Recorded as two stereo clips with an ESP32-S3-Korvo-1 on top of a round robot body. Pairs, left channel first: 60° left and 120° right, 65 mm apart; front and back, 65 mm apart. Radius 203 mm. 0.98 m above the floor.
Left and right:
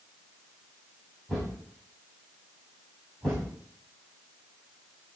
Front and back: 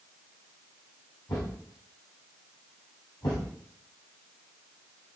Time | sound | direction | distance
1.3 | a thud | 25° right | 3.5 m